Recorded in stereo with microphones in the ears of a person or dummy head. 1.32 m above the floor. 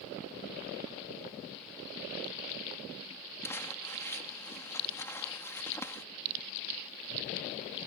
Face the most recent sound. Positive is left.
turn(degrees=15)  # may be behind; listen again after turning